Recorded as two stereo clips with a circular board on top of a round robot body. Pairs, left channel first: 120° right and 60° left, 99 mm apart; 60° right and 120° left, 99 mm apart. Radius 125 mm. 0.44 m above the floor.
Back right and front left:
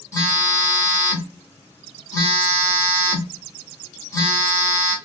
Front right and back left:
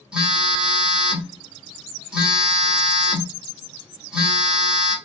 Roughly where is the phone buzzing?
Behind.